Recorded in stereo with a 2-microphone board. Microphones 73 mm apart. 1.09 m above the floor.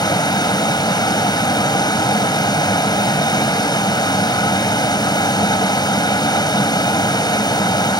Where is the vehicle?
75° left (ahead or behind).